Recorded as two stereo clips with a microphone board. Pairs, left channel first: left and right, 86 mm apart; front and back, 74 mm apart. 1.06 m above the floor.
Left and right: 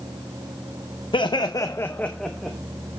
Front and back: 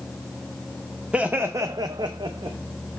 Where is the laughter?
105° left, 0.6 m; by 2.6 s straight behind, 0.9 m.